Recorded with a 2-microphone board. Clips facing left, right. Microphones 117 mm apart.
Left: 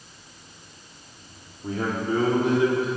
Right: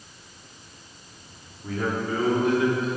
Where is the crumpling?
I don't hear crumpling.